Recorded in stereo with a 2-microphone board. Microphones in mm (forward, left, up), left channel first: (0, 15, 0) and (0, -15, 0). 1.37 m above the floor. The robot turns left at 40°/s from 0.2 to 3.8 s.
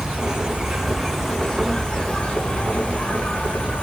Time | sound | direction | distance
0.0 | an insect | 145° right | 1.0 m